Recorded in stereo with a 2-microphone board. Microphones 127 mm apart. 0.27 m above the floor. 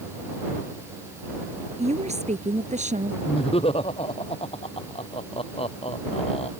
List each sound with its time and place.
1.8 s a woman speaking: 65° right (ahead or behind); by 3.1 s 75° right (ahead or behind)
3.2 s laughter: 50° left (ahead or behind)